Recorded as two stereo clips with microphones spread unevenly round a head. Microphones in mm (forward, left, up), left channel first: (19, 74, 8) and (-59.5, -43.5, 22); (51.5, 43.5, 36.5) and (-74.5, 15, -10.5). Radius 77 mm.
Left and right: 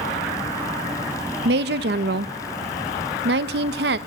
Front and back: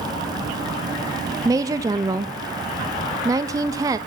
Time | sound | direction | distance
1.4 | a woman speaking | 95° right | 1.1 m